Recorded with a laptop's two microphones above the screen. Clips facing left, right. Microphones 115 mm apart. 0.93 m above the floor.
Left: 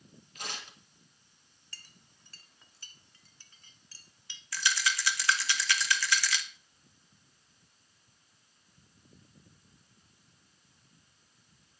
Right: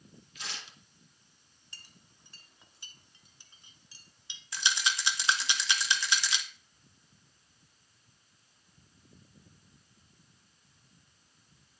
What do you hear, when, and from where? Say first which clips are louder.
0.3 s tearing paper: left 3 dB; 50° left (ahead or behind), 1.9 m
1.7 s a clink: even; 20° right (ahead or behind), 1.5 m
4.5 s a rattle: left 1 dB; 20° right (ahead or behind), 1.1 m